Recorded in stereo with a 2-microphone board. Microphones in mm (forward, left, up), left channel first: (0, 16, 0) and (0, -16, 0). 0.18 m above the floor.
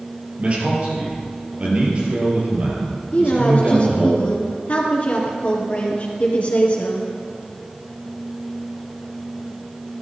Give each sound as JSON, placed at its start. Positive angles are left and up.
{"t": 0.4, "sound": "a man speaking", "side_deg": -40, "distance_m": 4.5}
{"t": 3.1, "sound": "a woman speaking", "side_deg": 45, "distance_m": 2.5}